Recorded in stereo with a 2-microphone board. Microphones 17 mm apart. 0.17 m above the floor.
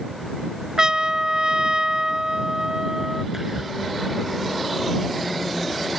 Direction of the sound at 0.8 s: 45° right (ahead or behind).